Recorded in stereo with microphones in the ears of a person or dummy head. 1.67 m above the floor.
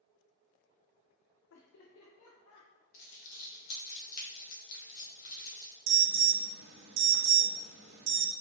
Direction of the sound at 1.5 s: 70° left (ahead or behind).